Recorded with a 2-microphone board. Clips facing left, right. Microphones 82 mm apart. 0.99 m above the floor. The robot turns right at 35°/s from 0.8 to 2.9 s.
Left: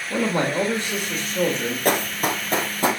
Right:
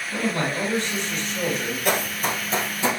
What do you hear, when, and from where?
0.1 s a man speaking: 125° left, 1.6 m; by 1.8 s 160° left, 1.6 m
1.9 s running footsteps: 50° left (ahead or behind), 1.6 m